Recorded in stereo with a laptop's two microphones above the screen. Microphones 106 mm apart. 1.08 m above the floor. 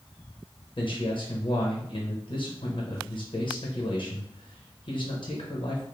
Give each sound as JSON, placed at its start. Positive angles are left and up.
{"t": 0.8, "sound": "a man speaking", "side_deg": 55, "distance_m": 0.8}